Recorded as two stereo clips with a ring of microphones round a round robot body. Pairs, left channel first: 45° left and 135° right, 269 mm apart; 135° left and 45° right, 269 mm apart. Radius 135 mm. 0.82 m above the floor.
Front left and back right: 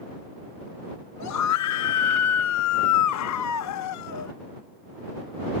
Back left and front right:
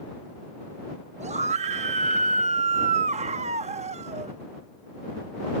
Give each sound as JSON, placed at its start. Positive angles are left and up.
{"t": 1.2, "sound": "a scream", "azimuth_deg": 20}